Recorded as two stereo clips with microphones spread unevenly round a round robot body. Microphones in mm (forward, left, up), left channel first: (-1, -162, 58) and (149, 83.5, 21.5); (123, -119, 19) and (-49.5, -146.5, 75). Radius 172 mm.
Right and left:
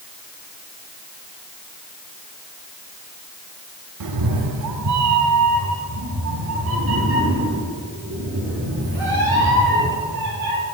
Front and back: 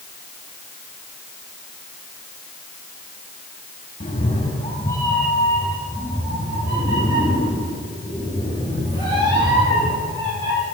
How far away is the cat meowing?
About 0.7 m.